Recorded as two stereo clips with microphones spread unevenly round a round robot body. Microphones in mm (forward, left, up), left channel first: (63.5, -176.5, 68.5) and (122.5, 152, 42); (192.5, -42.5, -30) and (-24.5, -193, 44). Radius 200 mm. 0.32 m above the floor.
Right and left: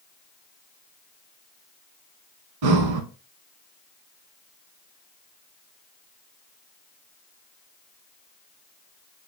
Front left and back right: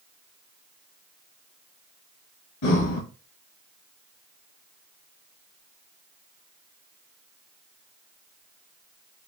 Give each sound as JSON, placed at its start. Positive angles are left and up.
{"t": 2.6, "sound": "breathing", "azimuth_deg": 60, "distance_m": 0.7}